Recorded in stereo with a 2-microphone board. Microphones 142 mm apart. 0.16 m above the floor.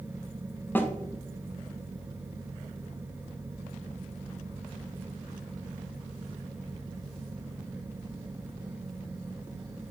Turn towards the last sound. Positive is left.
turn(degrees=15)  # may be behind; listen again after turning